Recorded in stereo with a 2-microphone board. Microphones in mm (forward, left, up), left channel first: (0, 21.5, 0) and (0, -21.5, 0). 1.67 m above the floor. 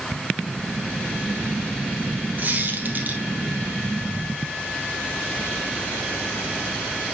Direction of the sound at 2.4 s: 45° right (ahead or behind).